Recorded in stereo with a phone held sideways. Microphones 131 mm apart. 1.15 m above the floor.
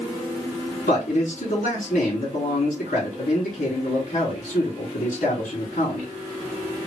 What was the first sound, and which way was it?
A man speaking, 75° left (ahead or behind).